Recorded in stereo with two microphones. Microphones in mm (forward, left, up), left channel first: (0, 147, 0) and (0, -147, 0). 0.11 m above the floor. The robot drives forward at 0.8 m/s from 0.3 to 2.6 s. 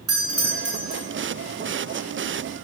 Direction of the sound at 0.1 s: 45° right (ahead or behind).